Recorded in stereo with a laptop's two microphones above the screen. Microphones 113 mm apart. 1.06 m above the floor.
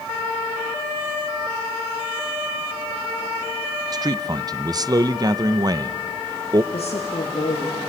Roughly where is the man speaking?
Right.